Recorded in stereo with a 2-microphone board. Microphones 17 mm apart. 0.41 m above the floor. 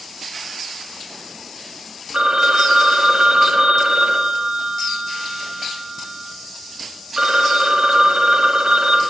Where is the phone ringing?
60° right (ahead or behind), 1.6 m.